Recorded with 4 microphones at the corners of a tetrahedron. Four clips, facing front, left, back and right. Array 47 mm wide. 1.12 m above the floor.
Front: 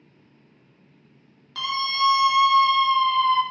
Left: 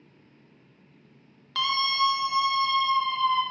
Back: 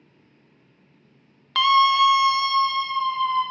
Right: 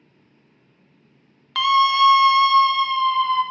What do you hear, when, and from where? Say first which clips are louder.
1.6 s a scream: right 9 dB, back 8 dB; 155° right, 1.3 m; by 3.4 s 30° right, 2 m